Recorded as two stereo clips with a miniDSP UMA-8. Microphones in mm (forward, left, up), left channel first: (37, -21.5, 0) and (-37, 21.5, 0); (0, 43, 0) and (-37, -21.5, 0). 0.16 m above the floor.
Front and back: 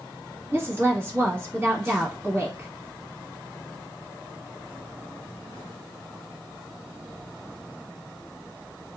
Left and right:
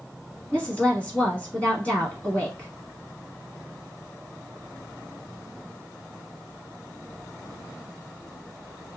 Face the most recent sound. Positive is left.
turn(degrees=115)